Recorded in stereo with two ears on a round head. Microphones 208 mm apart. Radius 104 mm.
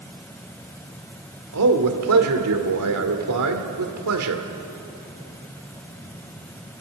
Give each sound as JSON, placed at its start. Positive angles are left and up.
{"t": 1.5, "sound": "a man speaking", "side_deg": -75, "distance_m": 2.0}